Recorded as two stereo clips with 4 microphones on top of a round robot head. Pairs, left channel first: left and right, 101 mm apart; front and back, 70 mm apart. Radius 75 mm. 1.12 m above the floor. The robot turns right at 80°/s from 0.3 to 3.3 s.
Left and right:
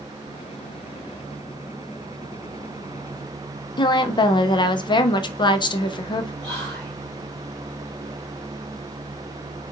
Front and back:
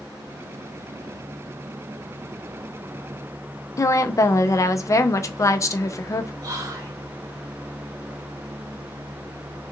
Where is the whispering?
170° left, 2 m.